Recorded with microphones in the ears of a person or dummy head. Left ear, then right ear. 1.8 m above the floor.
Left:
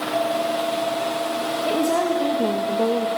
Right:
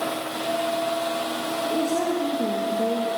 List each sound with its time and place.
1.6 s a woman speaking: 50° left (ahead or behind), 2.0 m